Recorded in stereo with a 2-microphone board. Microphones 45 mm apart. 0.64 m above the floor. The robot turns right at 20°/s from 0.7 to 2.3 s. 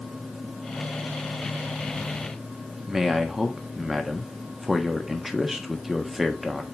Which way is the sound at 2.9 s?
10° right (ahead or behind).